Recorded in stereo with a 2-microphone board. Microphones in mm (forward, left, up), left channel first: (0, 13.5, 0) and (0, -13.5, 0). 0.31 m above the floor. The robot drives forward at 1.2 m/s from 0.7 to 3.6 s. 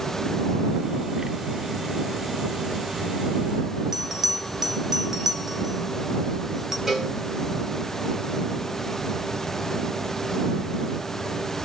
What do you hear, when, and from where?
3.9 s a bell: 15° right (ahead or behind), 1.1 m
6.9 s a cowbell: 10° right (ahead or behind), 2.5 m